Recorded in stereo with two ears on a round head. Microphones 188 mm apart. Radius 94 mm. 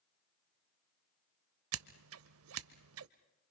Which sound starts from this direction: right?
Scissors, at 1.7 s.